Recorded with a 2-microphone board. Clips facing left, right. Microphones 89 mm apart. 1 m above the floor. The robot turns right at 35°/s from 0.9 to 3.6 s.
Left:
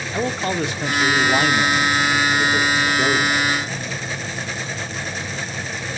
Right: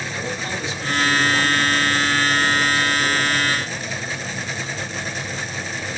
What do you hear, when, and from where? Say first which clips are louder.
0.1 s a man speaking: left 9 dB; 55° left, 1.9 m; by 3.5 s 145° left, 1.9 m